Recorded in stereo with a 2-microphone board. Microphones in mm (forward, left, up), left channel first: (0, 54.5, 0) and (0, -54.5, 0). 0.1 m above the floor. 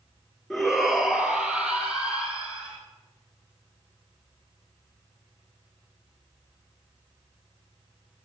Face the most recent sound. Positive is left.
turn(degrees=-10)  # may be behind; listen again after turning